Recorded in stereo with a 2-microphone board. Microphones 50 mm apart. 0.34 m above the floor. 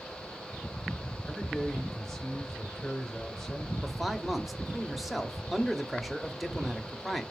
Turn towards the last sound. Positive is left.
turn(degrees=0)  # may be behind; listen again after turning